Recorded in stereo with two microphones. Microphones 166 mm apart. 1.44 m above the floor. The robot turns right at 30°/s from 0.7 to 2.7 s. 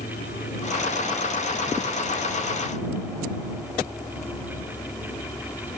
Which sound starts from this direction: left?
An insect, at 0.0 s.